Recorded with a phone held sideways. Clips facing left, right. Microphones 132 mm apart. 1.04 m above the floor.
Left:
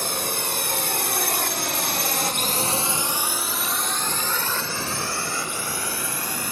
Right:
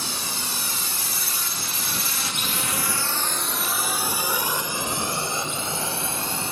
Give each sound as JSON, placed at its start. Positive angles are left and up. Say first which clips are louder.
{"t": 0.0, "sound": "a drone", "louder": "left 5 dB", "side_deg": 55}